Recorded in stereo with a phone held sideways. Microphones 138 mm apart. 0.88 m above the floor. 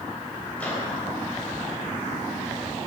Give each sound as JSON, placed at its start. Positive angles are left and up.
{"t": 0.6, "sound": "a microwave", "side_deg": 10, "distance_m": 3.0}